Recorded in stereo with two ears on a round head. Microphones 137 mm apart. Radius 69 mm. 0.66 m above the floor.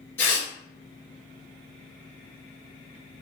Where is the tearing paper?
15° left (ahead or behind), 1.2 m.